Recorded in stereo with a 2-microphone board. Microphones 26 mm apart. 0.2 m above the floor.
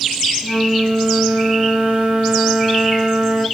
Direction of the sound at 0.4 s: 55° right (ahead or behind).